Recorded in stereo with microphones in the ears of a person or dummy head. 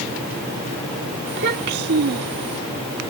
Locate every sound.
1.3 s a child speaking: 60° right (ahead or behind)